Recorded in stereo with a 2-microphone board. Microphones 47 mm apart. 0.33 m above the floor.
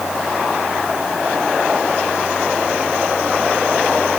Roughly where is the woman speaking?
No woman speaking in this recording.